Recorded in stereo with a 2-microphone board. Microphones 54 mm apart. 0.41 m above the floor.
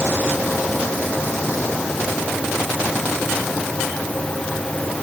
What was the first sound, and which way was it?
Only background noise.